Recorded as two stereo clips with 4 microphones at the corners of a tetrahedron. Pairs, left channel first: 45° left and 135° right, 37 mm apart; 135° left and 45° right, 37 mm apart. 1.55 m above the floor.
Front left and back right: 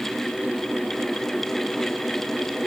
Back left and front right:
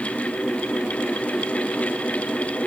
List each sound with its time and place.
Only background noise.